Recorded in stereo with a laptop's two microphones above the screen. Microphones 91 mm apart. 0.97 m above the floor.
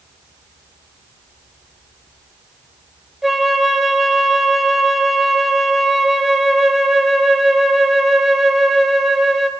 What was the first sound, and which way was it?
A flute, centre (ahead or behind).